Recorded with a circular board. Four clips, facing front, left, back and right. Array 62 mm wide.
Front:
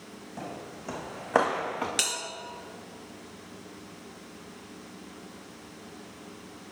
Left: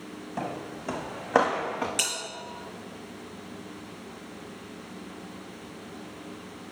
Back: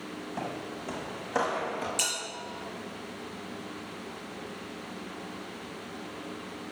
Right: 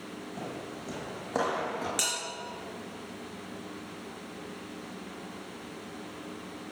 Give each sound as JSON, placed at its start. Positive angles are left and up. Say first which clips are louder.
{"t": 0.4, "sound": "footsteps", "louder": "left 7 dB, back 2 dB", "azimuth_deg": 110, "distance_m": 1.0}
{"t": 2.0, "sound": "a bell", "louder": "left 1 dB, front 1 dB", "azimuth_deg": 5, "distance_m": 3.5}